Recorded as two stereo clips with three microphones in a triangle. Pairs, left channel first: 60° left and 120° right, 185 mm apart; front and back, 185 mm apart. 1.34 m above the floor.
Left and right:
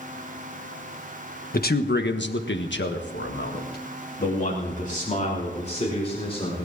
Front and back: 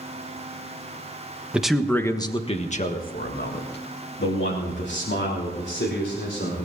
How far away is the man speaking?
About 1.5 m.